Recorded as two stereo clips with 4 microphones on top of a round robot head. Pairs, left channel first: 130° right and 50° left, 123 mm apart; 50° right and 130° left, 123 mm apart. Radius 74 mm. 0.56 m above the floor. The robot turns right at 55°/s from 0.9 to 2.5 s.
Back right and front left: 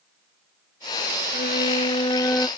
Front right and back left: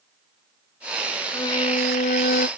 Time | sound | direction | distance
1.3 | a violin | 115° right | ?